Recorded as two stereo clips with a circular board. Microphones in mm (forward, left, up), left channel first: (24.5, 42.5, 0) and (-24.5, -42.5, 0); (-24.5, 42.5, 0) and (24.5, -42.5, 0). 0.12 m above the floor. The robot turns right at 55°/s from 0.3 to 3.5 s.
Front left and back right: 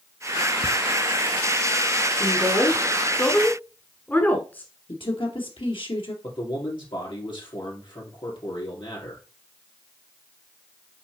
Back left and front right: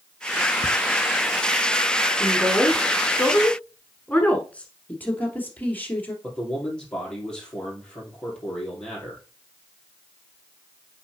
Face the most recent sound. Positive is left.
turn(degrees=40)